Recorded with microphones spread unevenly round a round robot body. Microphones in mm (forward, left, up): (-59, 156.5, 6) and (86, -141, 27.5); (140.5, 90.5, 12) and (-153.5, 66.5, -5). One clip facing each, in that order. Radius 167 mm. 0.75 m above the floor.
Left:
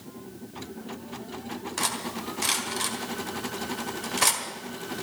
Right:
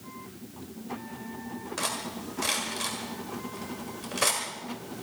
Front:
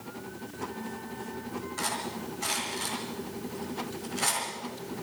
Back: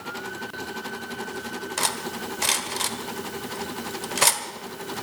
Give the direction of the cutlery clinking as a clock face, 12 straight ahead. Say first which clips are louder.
Left 2 dB, back 4 dB; 6 o'clock.